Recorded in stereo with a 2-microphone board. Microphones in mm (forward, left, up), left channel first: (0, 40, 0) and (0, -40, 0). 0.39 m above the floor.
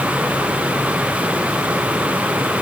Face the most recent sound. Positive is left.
No sound to turn to.